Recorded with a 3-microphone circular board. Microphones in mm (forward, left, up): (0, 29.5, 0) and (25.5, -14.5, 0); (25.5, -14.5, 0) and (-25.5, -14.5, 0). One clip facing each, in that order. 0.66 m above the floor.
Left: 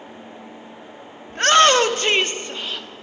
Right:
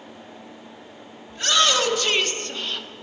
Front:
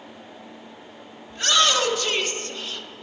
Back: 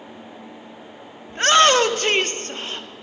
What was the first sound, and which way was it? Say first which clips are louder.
A shout: left 7 dB, back 6 dB; 140° left.